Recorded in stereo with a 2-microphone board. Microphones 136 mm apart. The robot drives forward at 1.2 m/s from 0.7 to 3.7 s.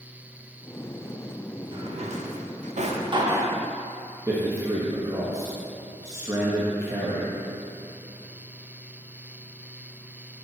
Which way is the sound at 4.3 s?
25° right (ahead or behind).